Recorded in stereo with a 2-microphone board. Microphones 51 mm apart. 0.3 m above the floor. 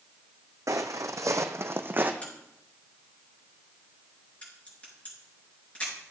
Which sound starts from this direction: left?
A crack, at 2.2 s.